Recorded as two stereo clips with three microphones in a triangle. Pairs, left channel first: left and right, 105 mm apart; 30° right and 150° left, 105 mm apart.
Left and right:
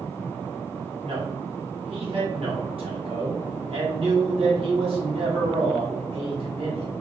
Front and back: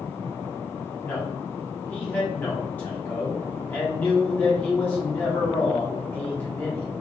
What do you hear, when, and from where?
1.0 s a man speaking: 100° right, 1.8 m